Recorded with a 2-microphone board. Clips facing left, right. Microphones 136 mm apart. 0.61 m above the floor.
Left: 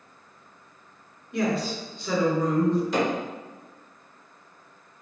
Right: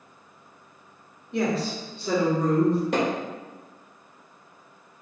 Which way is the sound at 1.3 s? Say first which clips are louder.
Even; 25° right (ahead or behind).